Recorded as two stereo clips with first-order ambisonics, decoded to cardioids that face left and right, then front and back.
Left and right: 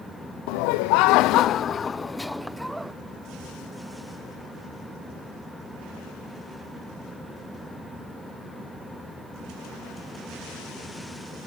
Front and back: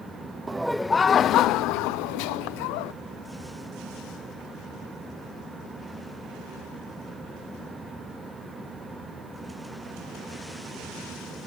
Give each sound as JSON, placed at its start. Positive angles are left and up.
{"t": 0.5, "sound": "laughter", "azimuth_deg": 100}